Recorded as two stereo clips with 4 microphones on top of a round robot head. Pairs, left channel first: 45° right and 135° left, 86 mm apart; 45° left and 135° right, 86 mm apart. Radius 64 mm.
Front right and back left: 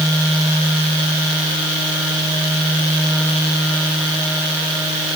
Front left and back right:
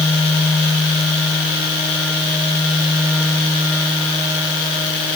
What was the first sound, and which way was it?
Only background noise.